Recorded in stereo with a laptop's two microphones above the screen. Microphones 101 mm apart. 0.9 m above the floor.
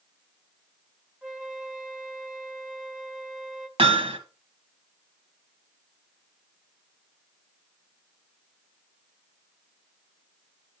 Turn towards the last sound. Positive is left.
turn(degrees=-65)  # may be behind; listen again after turning